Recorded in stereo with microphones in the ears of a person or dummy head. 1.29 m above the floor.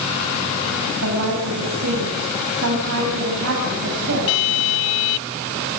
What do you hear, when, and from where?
1.0 s a woman speaking: 85° right, 7 m